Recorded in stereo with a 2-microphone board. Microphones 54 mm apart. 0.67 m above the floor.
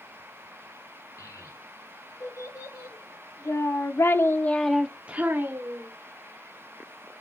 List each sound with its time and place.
1.2 s a child speaking: 85° left, 4 m; by 5.9 s 50° right (ahead or behind), 1.5 m